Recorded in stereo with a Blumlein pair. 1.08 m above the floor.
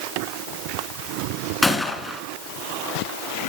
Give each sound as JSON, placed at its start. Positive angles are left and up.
{"t": 1.6, "sound": "a gunshot", "azimuth_deg": 5, "distance_m": 3.0}